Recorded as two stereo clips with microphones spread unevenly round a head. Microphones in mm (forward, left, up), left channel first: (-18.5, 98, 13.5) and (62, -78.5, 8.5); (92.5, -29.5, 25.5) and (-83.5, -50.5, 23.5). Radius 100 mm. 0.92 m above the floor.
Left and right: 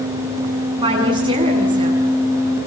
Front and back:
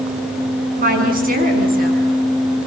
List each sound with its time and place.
0.8 s a woman speaking: 135° right, 7.5 m